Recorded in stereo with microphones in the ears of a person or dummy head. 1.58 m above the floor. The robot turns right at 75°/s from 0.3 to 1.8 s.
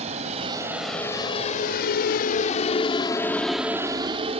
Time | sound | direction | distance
0.0 | a vehicle | 30° right (ahead or behind) | ?